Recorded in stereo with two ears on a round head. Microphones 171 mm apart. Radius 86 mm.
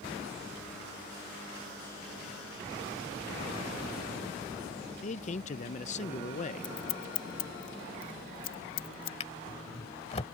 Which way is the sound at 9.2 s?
35° left (ahead or behind).